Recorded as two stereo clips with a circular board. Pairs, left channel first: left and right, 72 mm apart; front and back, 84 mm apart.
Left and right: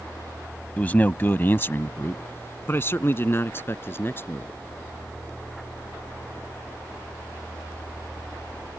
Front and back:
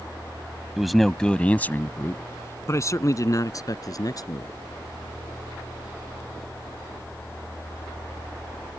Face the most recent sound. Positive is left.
turn(degrees=35)